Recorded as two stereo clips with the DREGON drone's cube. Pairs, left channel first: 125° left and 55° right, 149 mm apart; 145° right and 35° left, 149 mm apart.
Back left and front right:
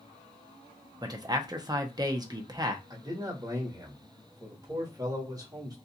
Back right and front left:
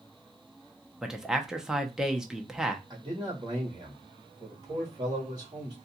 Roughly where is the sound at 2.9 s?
Ahead.